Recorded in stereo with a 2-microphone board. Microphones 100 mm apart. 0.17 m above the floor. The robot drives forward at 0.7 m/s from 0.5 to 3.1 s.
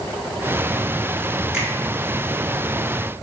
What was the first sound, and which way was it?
A finger snap, 10° right (ahead or behind).